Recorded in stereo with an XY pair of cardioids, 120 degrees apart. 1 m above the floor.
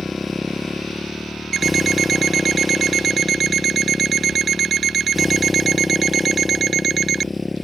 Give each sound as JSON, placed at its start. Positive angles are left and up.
{"t": 0.0, "sound": "a motorcycle", "azimuth_deg": 15}
{"t": 1.5, "sound": "an alarm clock", "azimuth_deg": -40}